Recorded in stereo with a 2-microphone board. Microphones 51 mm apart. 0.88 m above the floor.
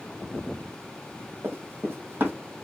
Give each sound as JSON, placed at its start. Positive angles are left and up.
{"t": 1.4, "sound": "running footsteps", "side_deg": -45, "distance_m": 1.3}